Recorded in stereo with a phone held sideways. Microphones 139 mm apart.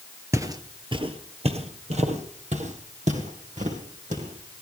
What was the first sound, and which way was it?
Footsteps, 20° right (ahead or behind).